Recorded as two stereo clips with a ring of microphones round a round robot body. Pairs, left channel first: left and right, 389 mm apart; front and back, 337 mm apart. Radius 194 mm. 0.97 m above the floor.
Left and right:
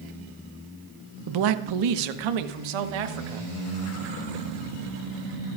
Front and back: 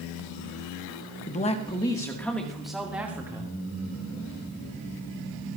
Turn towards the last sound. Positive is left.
turn(degrees=-95)